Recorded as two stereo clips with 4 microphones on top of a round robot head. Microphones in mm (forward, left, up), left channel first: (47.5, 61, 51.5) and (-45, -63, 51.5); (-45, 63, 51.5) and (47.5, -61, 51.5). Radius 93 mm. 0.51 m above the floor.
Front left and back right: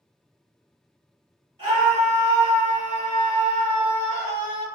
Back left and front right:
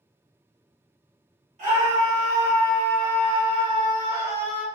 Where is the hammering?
I don't hear hammering.